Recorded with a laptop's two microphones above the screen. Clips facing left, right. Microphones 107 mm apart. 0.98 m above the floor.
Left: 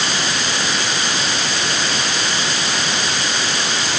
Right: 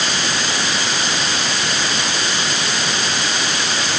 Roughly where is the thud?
I don't hear a thud.